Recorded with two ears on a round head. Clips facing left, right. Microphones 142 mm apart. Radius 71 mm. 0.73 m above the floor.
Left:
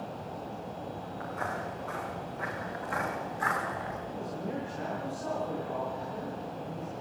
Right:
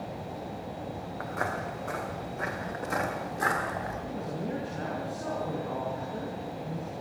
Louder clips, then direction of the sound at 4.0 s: Right 2 dB; 45° right (ahead or behind).